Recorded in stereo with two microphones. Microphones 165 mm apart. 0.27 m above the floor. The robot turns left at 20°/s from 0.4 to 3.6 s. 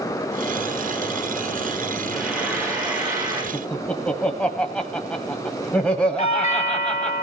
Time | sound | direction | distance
2.1 | frying | centre (ahead or behind) | 9.5 m
3.5 | laughter | 5° left (ahead or behind) | 1.2 m
6.2 | a doorbell | 40° left (ahead or behind) | 2.5 m